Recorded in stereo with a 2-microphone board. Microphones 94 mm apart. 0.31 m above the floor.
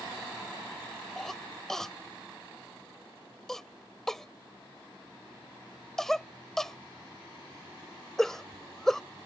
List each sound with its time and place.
1.2 s a cough: 5° left (ahead or behind)